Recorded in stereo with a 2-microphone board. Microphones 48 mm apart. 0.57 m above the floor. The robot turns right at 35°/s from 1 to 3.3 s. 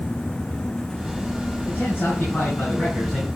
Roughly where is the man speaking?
Left.